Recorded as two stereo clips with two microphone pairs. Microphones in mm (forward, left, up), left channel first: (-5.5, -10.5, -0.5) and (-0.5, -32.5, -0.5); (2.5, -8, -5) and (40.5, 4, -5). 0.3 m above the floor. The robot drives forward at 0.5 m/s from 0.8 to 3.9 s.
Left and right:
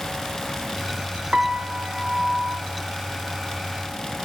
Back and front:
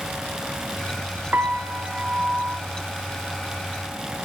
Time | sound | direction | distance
1.3 | a piano | 30° right | 1.8 m